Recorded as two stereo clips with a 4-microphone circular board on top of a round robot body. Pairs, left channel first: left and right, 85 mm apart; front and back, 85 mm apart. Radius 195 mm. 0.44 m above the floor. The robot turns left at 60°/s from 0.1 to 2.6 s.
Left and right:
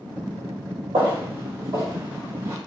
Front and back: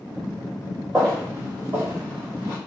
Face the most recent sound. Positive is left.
turn(degrees=-155)